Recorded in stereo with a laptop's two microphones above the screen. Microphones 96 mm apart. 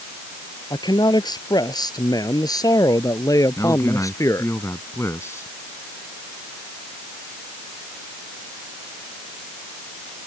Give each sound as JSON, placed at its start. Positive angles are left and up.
{"t": 0.7, "sound": "a man speaking", "side_deg": 50}
{"t": 3.6, "sound": "a man speaking", "side_deg": 30}